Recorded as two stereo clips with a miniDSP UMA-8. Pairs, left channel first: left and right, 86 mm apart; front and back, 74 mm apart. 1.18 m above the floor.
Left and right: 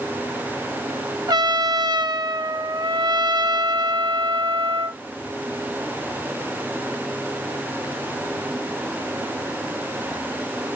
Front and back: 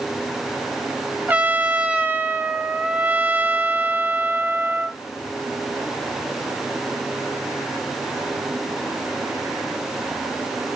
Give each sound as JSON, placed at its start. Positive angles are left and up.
{"t": 1.3, "sound": "a trumpet", "azimuth_deg": -115, "distance_m": 0.6}